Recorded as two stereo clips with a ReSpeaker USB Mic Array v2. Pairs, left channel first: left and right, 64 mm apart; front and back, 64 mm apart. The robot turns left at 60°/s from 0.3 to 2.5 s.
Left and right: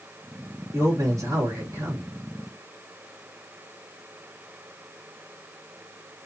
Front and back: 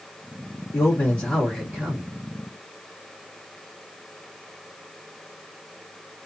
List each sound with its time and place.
0.7 s a man speaking: 40° right, 3 m; by 2.1 s 125° right, 3 m